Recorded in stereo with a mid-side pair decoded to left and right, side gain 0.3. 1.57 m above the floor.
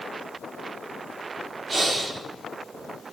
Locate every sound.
1.7 s breathing: 55° right, 4 m